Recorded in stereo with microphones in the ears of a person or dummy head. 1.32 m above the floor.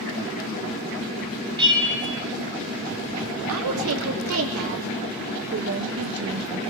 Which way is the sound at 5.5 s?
45° right (ahead or behind).